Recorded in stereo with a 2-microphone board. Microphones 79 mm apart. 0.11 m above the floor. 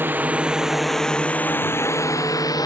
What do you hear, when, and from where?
0.0 s a drone: 25° right (ahead or behind); by 2.6 s 55° left (ahead or behind)